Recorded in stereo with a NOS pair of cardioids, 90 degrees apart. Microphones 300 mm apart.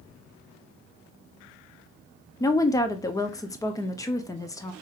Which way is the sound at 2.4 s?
10° left.